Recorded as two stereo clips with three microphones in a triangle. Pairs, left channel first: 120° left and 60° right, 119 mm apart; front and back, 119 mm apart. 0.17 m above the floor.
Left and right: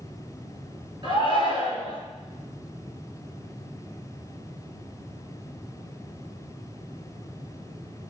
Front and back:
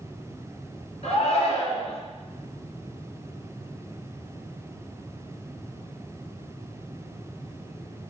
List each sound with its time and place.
1.0 s a shout: 15° right, 2.5 m